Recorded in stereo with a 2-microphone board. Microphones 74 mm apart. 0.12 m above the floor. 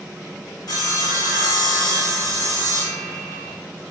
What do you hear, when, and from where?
0.7 s sawing: 70° left (ahead or behind), 1.6 m